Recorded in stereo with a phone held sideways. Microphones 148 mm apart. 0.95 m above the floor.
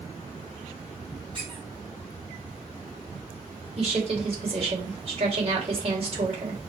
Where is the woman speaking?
45° right (ahead or behind), 3 m.